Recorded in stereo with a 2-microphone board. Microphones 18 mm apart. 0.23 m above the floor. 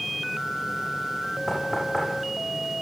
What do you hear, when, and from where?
1.5 s knocking: 20° left (ahead or behind), 9 m